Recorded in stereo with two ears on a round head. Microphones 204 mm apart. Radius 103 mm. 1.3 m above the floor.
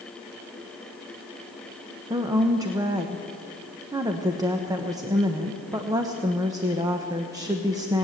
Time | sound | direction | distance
2.1 | a woman speaking | 15° right (ahead or behind) | 0.9 m